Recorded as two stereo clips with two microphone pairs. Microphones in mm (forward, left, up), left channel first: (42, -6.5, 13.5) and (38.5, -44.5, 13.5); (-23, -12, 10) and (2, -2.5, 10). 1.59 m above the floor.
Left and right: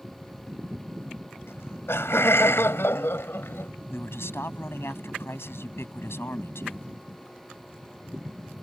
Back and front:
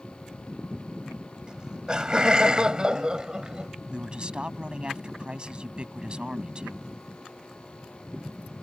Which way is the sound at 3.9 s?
80° left.